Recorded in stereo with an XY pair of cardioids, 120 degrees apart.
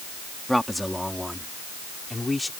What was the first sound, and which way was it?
A man speaking, straight ahead.